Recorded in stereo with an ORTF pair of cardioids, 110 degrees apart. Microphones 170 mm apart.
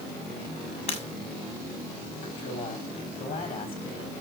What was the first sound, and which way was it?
Breaking glass, 35° left.